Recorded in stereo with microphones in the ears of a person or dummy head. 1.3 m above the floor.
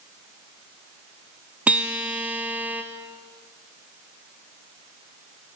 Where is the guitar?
Centre (ahead or behind), 0.7 m.